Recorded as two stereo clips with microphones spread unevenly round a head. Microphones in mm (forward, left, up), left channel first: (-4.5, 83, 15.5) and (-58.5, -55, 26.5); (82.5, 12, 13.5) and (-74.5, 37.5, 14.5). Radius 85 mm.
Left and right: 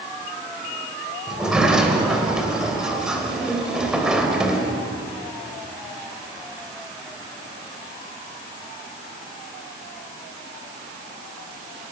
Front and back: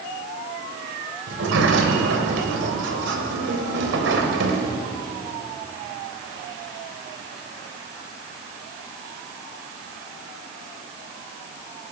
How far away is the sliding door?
About 3 m.